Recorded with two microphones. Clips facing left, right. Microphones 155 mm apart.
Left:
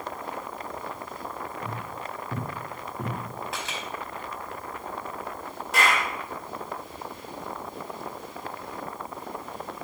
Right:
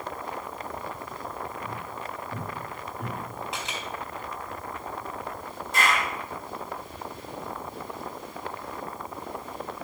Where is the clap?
75° left (ahead or behind), 5.5 m.